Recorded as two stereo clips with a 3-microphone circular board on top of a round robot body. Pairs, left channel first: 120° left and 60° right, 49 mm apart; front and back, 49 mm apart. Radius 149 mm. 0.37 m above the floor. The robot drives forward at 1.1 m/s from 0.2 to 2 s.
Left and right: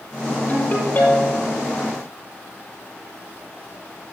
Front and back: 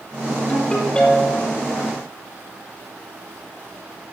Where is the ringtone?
65° left, 6.5 m; by 1.6 s 75° left, 6.5 m.